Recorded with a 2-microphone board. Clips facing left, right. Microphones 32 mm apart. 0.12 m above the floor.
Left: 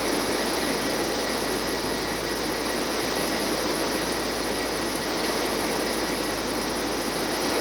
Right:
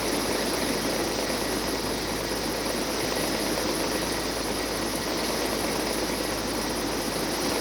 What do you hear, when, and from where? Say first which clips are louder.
0.0 s a helicopter: left 2 dB; 30° right (ahead or behind); by 7.6 s 25° right (ahead or behind)